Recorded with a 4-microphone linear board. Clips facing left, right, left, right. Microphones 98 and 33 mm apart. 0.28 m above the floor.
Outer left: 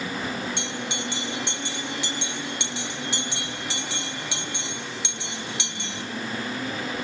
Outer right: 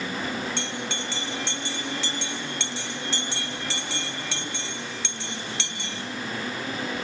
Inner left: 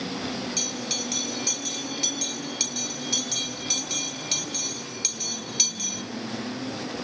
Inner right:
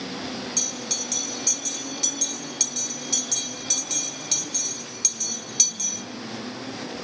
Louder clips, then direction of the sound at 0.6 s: Even, inner left 1 dB; 15° left (ahead or behind).